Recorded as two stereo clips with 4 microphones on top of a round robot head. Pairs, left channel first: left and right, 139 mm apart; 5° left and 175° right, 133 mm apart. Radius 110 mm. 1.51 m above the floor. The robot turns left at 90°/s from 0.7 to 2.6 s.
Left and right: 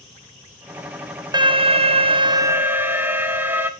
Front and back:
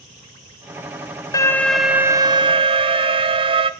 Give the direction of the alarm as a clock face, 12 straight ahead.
2 o'clock.